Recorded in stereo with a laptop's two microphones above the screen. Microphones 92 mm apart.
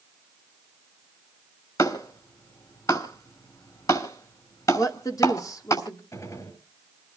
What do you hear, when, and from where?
1.8 s a clap: 40° left (ahead or behind), 6 m
4.8 s a woman speaking: 40° left (ahead or behind), 2 m
6.1 s a gunshot: 35° left (ahead or behind), 7.5 m